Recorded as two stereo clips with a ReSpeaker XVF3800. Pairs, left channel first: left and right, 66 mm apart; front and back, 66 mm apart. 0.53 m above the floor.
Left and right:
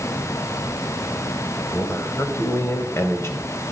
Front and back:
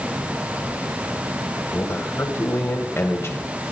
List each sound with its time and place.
1.7 s a man speaking: 45° left, 2 m